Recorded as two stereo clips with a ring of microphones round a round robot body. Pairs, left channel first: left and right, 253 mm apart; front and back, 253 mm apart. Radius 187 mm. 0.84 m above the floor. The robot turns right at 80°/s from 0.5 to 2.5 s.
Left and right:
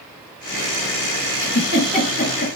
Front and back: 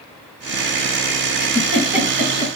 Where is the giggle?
50° left, 1.1 m; by 2.5 s 135° left, 1.1 m.